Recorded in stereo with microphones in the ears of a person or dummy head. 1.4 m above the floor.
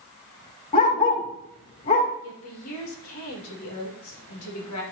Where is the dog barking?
40° left (ahead or behind), 2.5 m.